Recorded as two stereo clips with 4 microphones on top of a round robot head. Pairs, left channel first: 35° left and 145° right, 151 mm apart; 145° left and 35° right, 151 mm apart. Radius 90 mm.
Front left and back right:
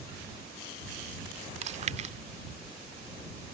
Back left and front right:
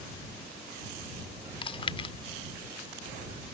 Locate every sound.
1.6 s chewing: 170° right